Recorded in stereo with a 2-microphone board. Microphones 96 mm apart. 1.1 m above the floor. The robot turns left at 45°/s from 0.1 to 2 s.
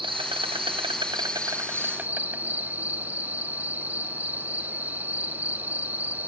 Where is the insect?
75° right, 0.8 m; by 6.3 s 160° right, 0.8 m.